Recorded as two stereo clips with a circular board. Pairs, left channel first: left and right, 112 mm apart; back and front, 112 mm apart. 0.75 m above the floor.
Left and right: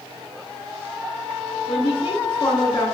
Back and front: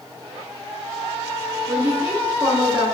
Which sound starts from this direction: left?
A woman speaking, at 1.7 s.